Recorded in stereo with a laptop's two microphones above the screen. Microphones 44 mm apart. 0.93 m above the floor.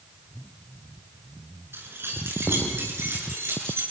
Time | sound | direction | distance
1.7 | keys jangling | 65° right (ahead or behind) | 7 m